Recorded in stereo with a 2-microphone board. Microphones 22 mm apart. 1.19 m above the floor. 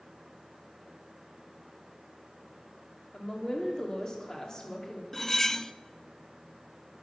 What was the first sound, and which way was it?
A woman speaking, 35° left (ahead or behind).